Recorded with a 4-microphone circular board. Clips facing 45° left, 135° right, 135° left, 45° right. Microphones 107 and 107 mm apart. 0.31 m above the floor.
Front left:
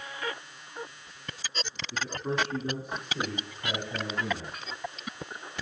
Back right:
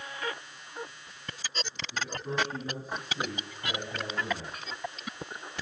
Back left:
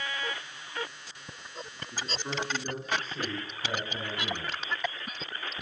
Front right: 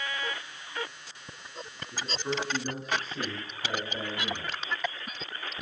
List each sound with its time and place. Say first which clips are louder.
1.9 s a man speaking: front left 2 dB, front right 3 dB; 40° left, 3.5 m